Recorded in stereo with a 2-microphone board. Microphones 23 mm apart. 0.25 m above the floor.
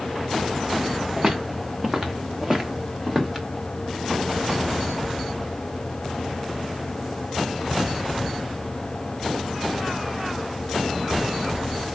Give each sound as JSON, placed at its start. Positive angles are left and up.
{"t": 1.2, "sound": "footsteps", "side_deg": -20, "distance_m": 1.8}